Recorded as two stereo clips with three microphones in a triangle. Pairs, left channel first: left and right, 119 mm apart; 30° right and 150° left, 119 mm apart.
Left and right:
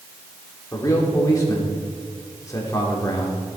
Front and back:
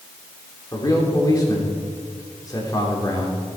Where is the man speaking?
25° left, 3 m.